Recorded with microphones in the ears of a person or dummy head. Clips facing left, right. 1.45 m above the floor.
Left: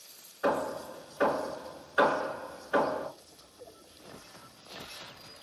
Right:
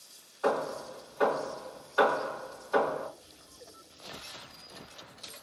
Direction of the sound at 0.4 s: 30° left (ahead or behind).